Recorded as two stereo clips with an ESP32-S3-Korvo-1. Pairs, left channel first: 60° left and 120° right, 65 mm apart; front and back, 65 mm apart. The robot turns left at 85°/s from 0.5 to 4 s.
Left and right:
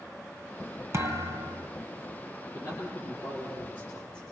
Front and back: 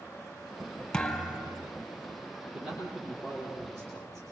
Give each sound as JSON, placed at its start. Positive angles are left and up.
{"t": 0.9, "sound": "a thud", "azimuth_deg": -80, "distance_m": 2.5}
{"t": 2.5, "sound": "a man speaking", "azimuth_deg": 110, "distance_m": 7.5}